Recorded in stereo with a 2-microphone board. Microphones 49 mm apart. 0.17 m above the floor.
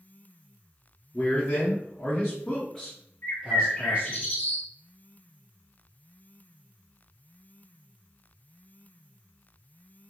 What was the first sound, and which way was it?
A man speaking, 45° left (ahead or behind).